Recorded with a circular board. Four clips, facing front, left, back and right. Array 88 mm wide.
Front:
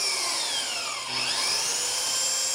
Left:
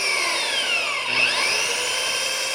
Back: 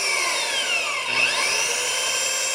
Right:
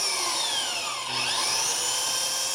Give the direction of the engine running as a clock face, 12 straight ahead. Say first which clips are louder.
Left 5 dB, back 7 dB; 8 o'clock.